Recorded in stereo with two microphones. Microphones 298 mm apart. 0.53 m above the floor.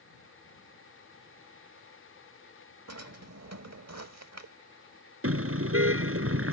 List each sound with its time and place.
2.9 s a drawer: 60° right (ahead or behind)
5.2 s a car horn: 45° right (ahead or behind)